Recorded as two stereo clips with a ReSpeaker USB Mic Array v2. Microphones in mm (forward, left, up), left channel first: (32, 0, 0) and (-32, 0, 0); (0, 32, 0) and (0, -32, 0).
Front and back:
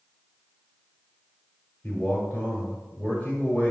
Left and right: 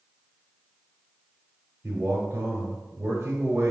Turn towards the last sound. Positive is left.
turn(degrees=-55)